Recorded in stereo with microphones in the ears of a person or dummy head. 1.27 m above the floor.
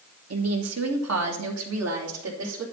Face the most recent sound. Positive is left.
turn(degrees=-85)